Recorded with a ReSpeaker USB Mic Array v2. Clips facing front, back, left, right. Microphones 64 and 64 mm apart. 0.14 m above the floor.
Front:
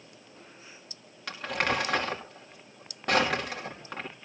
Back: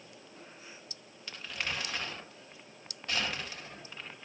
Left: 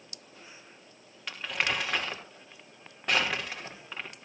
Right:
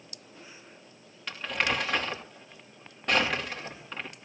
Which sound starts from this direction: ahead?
Crumpling, at 1.3 s.